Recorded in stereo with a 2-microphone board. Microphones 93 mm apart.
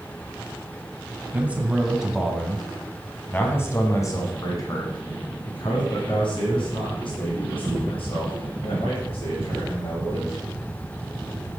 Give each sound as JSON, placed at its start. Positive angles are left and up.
{"t": 1.3, "sound": "a man speaking", "side_deg": -15, "distance_m": 1.7}